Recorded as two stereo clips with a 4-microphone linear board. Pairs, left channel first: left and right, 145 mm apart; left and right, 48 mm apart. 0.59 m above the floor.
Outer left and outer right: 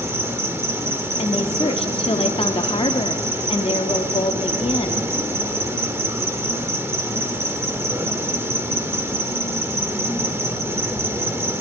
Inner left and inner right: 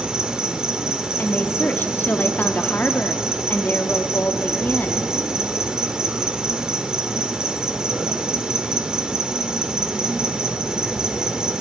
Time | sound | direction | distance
0.0 | an insect | 15° right (ahead or behind) | 0.9 m
1.2 | a woman speaking | 40° left (ahead or behind) | 0.7 m